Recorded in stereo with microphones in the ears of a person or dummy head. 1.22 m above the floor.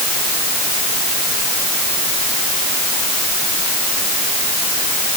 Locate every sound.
Only background noise.